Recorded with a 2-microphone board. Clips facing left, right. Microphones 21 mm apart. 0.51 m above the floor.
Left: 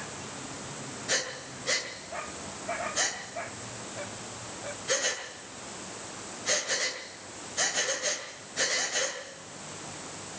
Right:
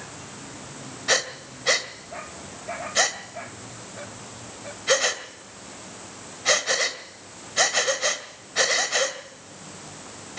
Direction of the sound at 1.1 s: 50° right (ahead or behind).